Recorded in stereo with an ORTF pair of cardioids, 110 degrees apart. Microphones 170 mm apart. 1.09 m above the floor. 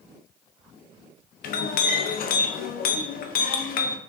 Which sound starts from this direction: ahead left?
A clink, at 1.4 s.